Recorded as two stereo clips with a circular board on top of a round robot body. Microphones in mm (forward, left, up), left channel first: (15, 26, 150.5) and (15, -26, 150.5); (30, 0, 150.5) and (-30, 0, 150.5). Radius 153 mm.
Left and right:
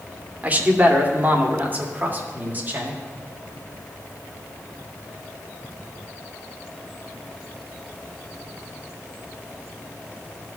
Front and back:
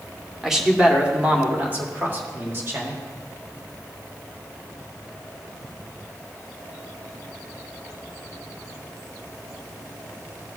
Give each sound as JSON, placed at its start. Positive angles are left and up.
{"t": 0.4, "sound": "a man speaking", "azimuth_deg": -105, "distance_m": 1.4}